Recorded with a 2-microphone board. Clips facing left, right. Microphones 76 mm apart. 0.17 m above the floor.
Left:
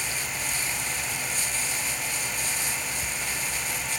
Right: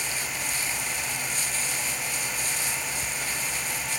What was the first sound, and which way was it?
Only background noise.